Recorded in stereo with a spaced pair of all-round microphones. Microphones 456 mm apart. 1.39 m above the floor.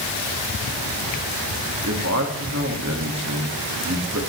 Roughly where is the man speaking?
Right.